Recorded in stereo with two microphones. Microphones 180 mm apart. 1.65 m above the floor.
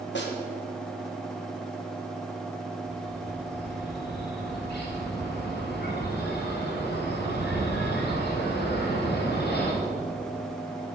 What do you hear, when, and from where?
0.1 s a snare drum: 85° left, 2 m
2.9 s a bird: 70° left (ahead or behind), 3.5 m